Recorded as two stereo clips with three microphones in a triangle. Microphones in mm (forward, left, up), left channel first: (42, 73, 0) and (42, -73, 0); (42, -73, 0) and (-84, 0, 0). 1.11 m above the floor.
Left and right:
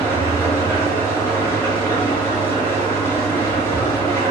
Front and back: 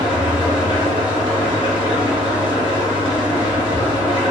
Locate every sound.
0.0 s an engine running: 15° left, 1.6 m